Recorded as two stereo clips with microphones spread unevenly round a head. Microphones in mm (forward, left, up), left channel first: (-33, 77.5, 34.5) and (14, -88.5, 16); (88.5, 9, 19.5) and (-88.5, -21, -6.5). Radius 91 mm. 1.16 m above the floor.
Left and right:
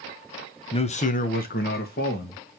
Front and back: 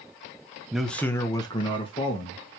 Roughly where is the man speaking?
Behind left.